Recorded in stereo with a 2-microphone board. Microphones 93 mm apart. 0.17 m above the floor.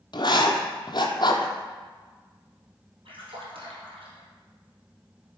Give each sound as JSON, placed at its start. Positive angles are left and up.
{"t": 0.1, "sound": "writing", "side_deg": 55, "distance_m": 0.8}
{"t": 3.0, "sound": "a splash", "side_deg": -70, "distance_m": 2.5}